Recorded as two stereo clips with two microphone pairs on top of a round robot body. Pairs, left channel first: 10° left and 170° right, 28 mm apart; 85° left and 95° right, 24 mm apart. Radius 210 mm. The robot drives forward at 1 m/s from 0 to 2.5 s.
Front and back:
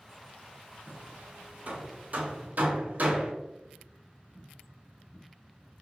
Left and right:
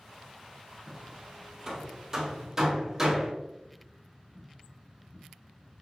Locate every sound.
0.9 s hammering: 155° right, 1.4 m; by 3.3 s 170° right, 3 m